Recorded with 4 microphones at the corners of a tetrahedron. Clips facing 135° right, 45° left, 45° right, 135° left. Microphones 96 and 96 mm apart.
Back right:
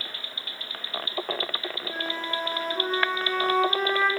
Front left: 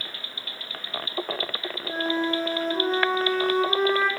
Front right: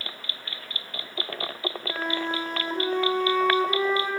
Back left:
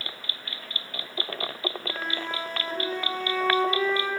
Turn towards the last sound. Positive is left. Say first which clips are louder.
# front left 8 dB, front right 4 dB
turn(degrees=5)